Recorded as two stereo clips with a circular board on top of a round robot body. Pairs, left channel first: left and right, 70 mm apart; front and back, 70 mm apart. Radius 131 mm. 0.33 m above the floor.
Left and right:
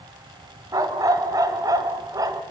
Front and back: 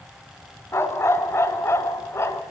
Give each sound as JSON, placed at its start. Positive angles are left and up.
{"t": 0.7, "sound": "a dog barking", "azimuth_deg": -55, "distance_m": 1.6}